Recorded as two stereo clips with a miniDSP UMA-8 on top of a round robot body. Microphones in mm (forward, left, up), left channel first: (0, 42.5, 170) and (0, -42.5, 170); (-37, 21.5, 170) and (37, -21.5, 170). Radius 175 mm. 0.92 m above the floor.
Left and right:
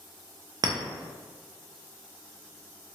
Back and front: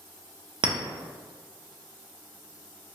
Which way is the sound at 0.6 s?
50° right.